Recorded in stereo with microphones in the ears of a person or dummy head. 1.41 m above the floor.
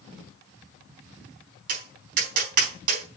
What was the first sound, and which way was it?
Tapping, 55° right (ahead or behind).